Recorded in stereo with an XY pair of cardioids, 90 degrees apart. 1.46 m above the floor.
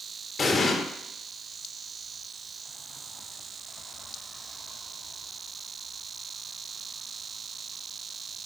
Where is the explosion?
35° left, 1.1 m.